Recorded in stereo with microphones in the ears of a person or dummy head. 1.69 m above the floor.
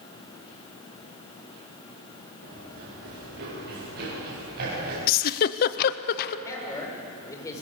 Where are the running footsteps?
60° right (ahead or behind), 9 m; by 5.0 s 55° right (ahead or behind), 11.5 m.